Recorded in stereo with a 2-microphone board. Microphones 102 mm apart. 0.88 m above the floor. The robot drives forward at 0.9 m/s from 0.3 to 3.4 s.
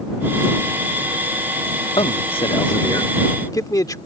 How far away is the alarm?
I don't hear an alarm.